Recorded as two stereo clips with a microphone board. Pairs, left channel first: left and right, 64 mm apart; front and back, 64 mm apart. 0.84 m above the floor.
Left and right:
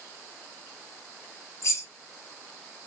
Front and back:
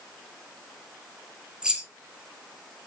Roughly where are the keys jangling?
Left.